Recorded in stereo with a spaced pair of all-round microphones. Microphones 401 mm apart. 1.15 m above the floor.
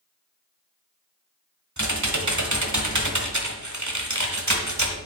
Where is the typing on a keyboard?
45° right (ahead or behind), 1.4 m.